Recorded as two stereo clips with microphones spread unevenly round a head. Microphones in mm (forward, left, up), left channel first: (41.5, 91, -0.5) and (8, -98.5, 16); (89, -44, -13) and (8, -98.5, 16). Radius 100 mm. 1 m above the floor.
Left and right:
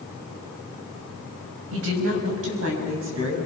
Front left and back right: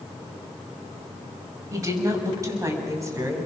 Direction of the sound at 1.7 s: 95° right.